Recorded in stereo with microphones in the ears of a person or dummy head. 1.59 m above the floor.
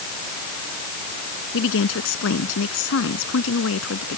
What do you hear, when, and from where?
1.5 s a woman speaking: 75° left (ahead or behind); by 4.2 s 85° left